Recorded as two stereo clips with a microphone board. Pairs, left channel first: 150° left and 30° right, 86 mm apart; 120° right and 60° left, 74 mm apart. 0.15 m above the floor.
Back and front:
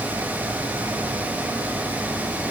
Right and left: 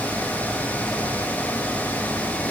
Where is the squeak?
I don't hear a squeak.